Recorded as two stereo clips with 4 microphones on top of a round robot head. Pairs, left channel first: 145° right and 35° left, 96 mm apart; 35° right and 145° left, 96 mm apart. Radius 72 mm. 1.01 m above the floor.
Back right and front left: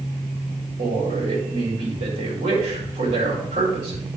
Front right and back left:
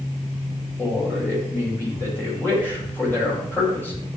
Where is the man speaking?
35° left, 5 m.